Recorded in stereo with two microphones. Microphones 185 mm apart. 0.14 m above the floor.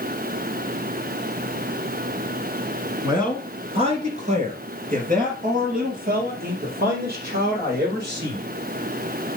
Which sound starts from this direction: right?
A man speaking, at 3.0 s.